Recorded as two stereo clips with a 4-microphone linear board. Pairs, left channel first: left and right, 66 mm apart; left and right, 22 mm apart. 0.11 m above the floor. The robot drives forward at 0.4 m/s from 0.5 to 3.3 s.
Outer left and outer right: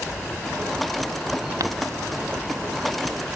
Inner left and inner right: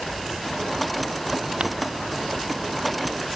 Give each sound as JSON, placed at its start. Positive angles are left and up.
{"t": 1.6, "sound": "crumpling", "side_deg": -60}